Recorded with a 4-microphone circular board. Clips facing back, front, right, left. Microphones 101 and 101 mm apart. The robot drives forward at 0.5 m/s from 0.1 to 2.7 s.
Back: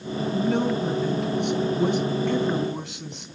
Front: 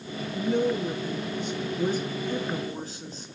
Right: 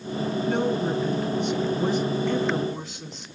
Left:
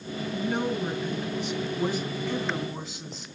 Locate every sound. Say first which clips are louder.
0.3 s a woman speaking: back 1 dB, right 3 dB; 170° left, 1.9 m; by 3.3 s 175° left, 3 m